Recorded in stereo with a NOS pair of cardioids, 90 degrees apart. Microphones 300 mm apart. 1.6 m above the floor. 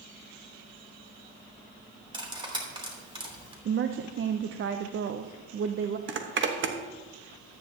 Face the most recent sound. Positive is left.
turn(degrees=-40)